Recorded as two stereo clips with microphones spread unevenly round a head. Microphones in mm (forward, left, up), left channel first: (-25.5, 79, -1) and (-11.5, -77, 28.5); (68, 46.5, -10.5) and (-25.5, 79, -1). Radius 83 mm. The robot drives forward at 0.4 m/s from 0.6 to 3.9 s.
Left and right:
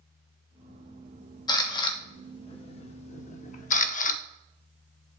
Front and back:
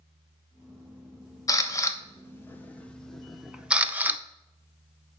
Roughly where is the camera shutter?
Ahead left.